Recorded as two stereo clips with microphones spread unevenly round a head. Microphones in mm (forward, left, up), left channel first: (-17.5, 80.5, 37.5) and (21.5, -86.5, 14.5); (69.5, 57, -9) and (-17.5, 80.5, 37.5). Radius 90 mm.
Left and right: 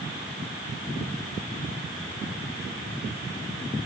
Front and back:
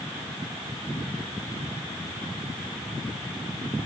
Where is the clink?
I don't hear a clink.